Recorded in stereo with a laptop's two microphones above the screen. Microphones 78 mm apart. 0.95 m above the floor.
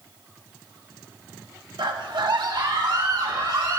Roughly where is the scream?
Right.